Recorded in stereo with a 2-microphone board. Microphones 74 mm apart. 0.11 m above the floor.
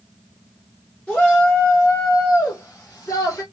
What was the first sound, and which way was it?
A shout, 15° left (ahead or behind).